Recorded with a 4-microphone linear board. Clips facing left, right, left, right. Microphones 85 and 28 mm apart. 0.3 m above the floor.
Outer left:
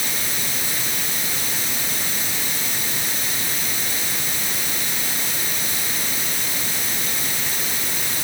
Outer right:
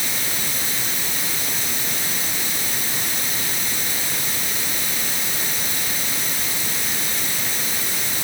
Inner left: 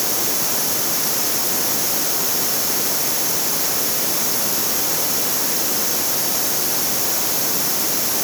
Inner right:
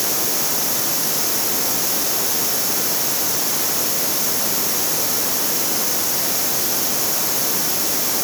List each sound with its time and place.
Only background noise.